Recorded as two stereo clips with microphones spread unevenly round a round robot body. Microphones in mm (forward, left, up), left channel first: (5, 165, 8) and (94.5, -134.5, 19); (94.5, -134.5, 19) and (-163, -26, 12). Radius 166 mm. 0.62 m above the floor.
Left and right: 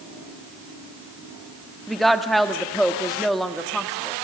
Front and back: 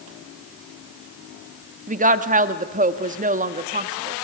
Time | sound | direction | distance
1.9 | a woman speaking | 165° right | 1.4 m